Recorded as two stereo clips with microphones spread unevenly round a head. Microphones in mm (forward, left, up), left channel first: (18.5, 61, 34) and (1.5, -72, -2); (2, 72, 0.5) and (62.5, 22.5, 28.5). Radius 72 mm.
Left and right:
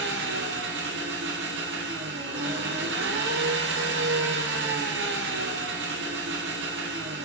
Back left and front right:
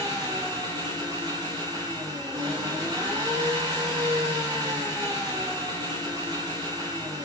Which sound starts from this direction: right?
An engine running, at 0.0 s.